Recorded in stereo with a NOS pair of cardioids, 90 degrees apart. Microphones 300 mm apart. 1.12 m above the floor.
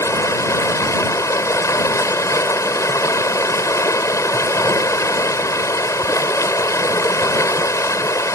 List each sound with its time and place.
0.0 s running water: 10° left